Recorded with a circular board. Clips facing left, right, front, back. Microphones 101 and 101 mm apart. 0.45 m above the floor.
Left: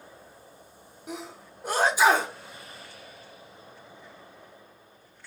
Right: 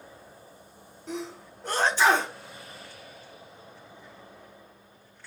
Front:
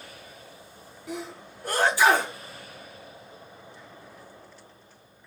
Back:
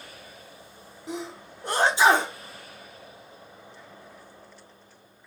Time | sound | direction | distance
1.1 | a sneeze | 155° left | 0.9 m